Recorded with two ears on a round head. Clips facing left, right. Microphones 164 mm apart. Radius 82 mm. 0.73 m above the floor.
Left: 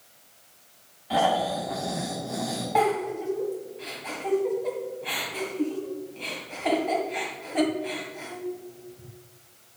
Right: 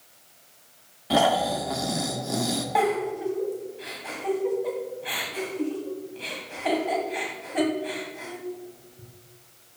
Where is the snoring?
55° right (ahead or behind), 1.2 m.